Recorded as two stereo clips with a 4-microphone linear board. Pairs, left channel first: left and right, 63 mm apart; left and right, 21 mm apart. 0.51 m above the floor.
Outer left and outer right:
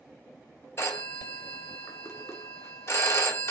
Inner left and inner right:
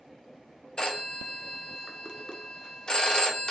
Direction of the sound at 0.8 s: 40° left (ahead or behind).